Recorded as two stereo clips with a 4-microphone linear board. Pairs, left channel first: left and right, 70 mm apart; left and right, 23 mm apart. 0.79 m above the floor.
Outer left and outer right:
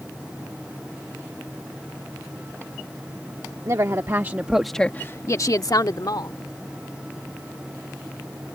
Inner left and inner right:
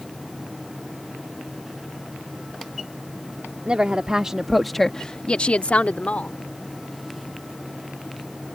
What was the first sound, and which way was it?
A woman speaking, 50° right (ahead or behind).